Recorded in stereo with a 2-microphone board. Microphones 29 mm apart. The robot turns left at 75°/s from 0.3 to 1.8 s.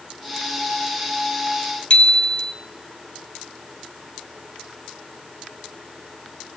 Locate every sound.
1.9 s a bicycle bell: 35° left (ahead or behind), 2.5 m